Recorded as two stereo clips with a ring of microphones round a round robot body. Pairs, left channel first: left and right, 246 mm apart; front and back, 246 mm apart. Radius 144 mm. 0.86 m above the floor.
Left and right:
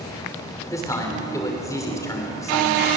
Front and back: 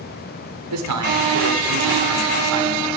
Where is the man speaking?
170° left, 3 m.